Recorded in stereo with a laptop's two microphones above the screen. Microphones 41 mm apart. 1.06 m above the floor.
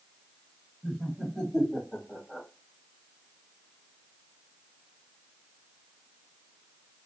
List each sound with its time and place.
0.8 s laughter: 5° right (ahead or behind), 2 m; by 2.5 s 15° left (ahead or behind), 1.4 m